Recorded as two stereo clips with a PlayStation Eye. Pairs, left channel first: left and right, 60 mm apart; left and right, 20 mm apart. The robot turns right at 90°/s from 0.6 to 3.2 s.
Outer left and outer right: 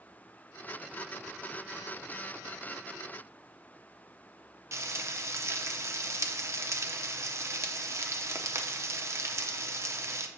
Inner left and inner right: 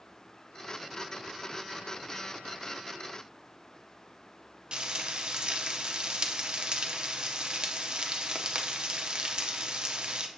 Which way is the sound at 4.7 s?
50° right (ahead or behind).